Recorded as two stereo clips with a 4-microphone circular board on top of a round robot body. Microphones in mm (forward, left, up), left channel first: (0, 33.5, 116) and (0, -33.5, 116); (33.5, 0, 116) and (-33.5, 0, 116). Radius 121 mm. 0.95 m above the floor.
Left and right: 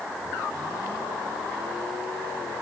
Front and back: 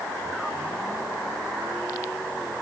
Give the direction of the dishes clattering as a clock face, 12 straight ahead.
No dishes clattering in this recording.